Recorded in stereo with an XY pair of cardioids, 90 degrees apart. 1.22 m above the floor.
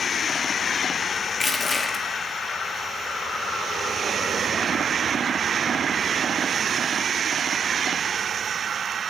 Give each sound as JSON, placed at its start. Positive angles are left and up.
{"t": 1.3, "sound": "crushing", "azimuth_deg": 40, "distance_m": 0.9}